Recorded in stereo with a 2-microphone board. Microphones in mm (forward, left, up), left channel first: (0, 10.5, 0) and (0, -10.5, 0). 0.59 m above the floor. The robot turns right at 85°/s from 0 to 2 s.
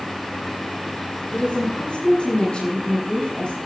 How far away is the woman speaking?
About 7.5 m.